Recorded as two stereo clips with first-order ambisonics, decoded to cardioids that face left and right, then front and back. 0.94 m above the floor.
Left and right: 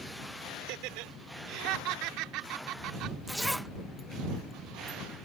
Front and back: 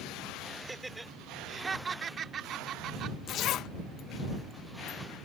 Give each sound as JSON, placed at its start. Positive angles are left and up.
{"t": 0.6, "sound": "laughter", "azimuth_deg": -95}
{"t": 3.3, "sound": "a zipper", "azimuth_deg": 0}